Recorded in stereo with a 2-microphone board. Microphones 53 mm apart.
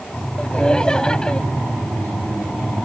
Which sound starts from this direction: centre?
Laughter, at 0.4 s.